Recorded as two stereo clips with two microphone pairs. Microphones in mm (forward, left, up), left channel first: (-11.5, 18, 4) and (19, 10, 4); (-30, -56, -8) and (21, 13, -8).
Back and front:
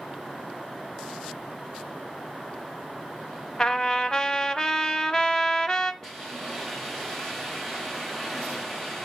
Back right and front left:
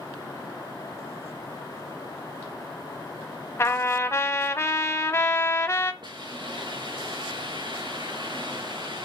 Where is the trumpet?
145° right, 1.0 m.